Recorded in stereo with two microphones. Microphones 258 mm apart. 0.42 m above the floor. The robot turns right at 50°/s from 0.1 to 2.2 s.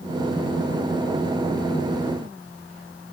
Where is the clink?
No clink in this recording.